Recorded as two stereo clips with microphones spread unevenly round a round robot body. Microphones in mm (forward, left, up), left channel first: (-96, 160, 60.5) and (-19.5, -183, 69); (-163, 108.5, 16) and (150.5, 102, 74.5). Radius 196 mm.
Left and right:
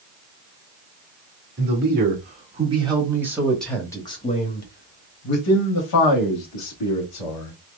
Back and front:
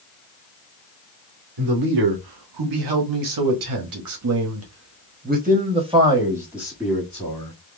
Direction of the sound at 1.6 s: 15° right.